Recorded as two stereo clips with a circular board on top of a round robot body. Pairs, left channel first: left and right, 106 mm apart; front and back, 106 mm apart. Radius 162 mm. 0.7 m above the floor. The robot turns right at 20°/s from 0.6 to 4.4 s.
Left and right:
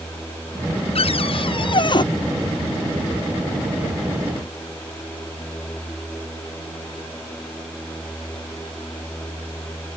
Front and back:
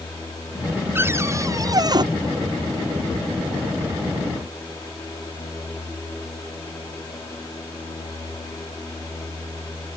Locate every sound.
0.9 s a cupboard door: 110° left; by 2.0 s 135° left